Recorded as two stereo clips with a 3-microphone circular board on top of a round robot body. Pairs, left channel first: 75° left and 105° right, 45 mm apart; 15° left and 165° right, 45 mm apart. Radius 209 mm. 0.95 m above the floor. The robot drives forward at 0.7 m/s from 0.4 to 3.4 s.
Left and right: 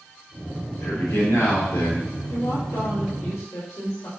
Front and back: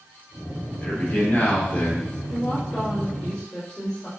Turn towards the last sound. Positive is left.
turn(degrees=90)